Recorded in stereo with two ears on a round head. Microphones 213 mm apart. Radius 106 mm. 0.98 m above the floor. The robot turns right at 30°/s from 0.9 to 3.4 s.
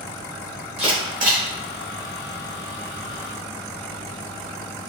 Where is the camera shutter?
25° right (ahead or behind), 1.9 m; by 1.4 s 40° right (ahead or behind), 1.9 m.